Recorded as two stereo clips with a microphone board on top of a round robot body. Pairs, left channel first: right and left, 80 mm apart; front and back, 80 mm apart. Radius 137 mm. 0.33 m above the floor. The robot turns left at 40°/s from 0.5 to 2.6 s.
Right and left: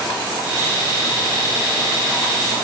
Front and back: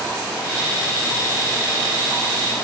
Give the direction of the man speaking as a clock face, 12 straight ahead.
I don't hear a man speaking.